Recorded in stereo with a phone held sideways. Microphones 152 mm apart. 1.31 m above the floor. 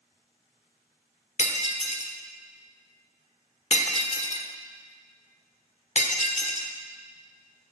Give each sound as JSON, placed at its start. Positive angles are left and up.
{"t": 1.4, "sound": "breaking glass", "side_deg": 50, "distance_m": 1.2}